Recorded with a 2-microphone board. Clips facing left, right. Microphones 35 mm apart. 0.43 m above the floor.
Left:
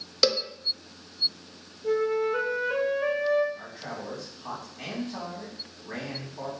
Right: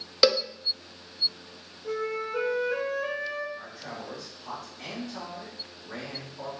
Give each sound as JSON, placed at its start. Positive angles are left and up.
{"t": 0.2, "sound": "a cowbell", "side_deg": -20, "distance_m": 0.6}
{"t": 1.8, "sound": "a flute", "side_deg": 80, "distance_m": 3.5}
{"t": 3.5, "sound": "a man speaking", "side_deg": 65, "distance_m": 3.0}